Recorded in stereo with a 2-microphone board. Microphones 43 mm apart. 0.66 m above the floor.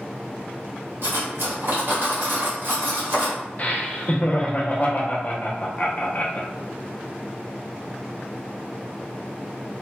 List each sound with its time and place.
1.0 s cutlery clinking: 60° right (ahead or behind), 1.2 m
3.6 s laughter: 40° left (ahead or behind), 0.6 m